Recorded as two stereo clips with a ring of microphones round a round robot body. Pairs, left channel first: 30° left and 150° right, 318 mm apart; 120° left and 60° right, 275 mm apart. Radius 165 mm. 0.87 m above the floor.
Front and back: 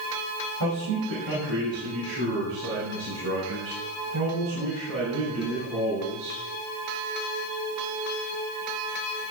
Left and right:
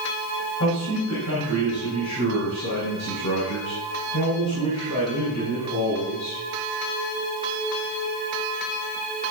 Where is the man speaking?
175° left, 5.5 m; by 6.4 s 155° left, 8 m.